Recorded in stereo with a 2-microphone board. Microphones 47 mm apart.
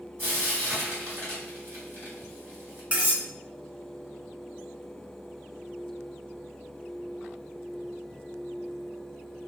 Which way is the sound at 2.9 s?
30° right (ahead or behind).